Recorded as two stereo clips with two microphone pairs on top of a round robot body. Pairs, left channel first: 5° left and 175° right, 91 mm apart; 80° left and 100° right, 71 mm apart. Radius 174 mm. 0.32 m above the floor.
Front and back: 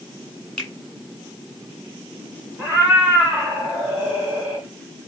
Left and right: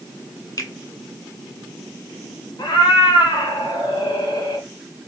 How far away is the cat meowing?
About 1.7 m.